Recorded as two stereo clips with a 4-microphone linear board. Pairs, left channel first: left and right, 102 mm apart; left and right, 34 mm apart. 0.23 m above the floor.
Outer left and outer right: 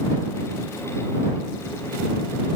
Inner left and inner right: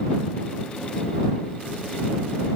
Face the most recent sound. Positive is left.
No sound to turn to.